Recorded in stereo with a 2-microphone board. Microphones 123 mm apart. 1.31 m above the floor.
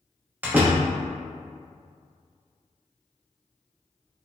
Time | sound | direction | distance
0.4 | a door slam | 15° right (ahead or behind) | 0.9 m